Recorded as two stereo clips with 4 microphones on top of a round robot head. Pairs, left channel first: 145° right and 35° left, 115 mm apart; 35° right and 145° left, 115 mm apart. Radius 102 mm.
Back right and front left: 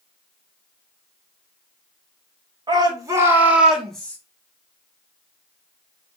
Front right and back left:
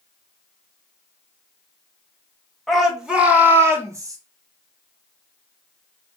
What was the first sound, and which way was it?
A shout, 55° left.